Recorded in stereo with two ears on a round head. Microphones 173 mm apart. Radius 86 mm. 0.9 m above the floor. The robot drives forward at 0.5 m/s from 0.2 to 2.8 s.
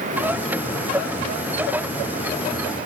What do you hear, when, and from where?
Only background noise.